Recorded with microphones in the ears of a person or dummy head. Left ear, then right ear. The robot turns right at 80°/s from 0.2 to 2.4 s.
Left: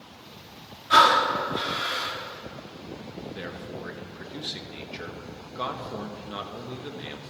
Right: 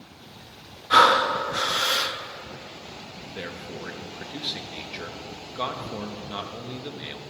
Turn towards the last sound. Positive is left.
turn(degrees=-10)  # may be behind; listen again after turning